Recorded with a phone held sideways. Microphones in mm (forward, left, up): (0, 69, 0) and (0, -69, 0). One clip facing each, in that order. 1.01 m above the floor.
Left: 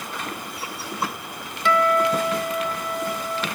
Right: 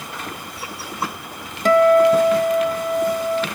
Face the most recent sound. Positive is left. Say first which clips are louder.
# right 8 dB
turn(degrees=-40)  # may be behind; listen again after turning